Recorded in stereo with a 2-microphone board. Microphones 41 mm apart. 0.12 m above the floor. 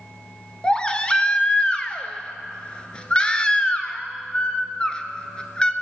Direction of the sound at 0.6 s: 25° left (ahead or behind).